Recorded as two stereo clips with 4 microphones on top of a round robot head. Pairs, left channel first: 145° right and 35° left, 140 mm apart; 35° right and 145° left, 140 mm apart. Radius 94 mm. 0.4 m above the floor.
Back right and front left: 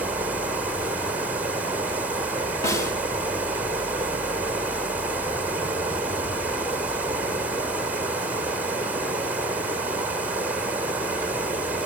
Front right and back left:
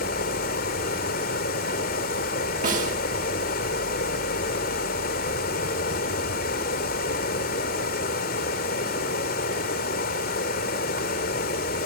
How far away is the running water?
About 2.5 m.